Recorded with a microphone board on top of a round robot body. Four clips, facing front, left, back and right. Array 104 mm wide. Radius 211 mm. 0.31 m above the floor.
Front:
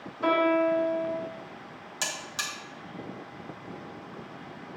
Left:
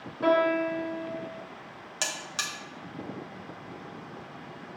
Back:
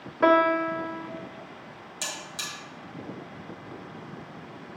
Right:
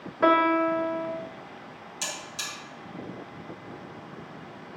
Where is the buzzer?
75° left, 2 m.